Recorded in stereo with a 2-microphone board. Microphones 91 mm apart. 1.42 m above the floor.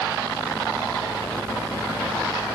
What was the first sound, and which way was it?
Only background noise.